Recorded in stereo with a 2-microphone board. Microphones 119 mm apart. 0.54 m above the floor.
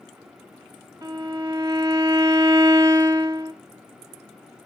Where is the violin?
25° right (ahead or behind), 1.1 m.